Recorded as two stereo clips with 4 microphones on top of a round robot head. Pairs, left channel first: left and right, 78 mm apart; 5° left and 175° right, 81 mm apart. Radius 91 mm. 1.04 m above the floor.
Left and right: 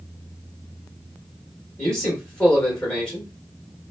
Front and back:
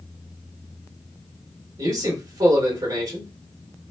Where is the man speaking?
165° left, 1.4 m.